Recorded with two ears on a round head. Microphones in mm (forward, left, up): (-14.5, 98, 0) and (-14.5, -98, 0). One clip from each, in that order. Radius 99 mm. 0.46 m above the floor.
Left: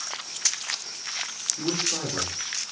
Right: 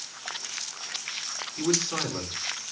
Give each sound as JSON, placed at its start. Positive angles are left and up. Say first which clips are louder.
{"t": 1.6, "sound": "a man speaking", "louder": "right 2 dB", "side_deg": -75, "distance_m": 5.5}